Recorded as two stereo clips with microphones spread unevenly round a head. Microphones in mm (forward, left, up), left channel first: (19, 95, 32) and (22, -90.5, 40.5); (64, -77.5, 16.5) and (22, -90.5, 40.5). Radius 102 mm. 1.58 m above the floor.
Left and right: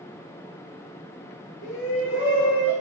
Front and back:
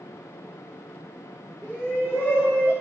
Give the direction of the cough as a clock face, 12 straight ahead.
No cough in this recording.